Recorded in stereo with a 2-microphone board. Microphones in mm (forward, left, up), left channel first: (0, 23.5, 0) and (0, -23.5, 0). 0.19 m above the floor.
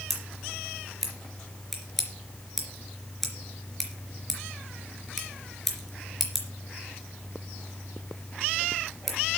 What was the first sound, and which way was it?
Scissors, 5° left (ahead or behind).